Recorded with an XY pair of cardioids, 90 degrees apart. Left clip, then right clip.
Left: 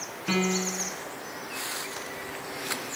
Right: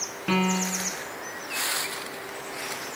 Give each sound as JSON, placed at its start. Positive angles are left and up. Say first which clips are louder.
{"t": 0.3, "sound": "a piano", "louder": "right 2 dB", "azimuth_deg": -30, "distance_m": 1.4}